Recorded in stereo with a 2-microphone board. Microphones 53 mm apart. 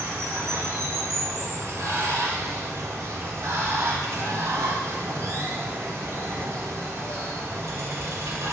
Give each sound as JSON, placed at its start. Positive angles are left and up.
{"t": 0.0, "sound": "running water", "side_deg": -80, "distance_m": 1.0}